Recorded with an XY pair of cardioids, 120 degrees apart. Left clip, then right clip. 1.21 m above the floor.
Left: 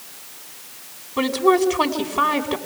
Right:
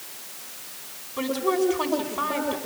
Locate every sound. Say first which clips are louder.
1.2 s a woman speaking: left 7 dB; 50° left, 5 m